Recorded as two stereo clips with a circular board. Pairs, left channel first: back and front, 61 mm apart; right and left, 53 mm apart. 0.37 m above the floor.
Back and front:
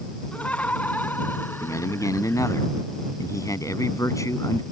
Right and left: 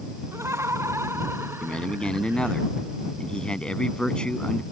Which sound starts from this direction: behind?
A man speaking, at 1.6 s.